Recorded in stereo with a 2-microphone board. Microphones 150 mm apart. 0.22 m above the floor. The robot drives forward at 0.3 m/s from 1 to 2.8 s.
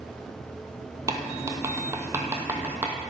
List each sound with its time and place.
1.1 s writing: 20° right (ahead or behind), 1.1 m; by 2.9 s 15° right (ahead or behind), 1.6 m